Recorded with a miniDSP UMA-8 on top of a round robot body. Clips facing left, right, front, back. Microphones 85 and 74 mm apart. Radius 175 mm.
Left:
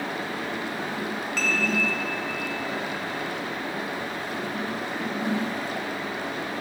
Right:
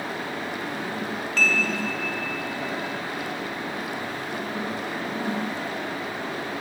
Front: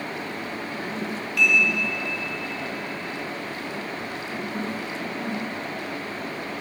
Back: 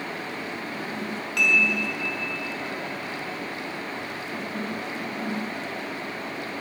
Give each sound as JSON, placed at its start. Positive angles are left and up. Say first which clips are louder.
{"t": 1.4, "sound": "dishes clattering", "louder": "right 4 dB, front 1 dB", "azimuth_deg": 170, "distance_m": 2.0}